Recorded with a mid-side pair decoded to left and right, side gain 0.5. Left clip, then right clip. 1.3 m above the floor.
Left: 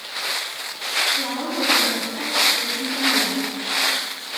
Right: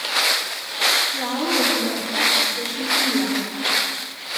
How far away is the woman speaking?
About 4.5 m.